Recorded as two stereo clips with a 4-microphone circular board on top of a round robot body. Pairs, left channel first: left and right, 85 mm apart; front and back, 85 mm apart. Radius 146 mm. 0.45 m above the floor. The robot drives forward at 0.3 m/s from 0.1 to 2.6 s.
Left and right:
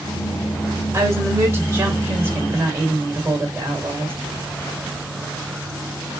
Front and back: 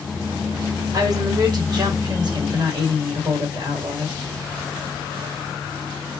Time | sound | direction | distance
0.9 | a woman speaking | 140° right | 1.3 m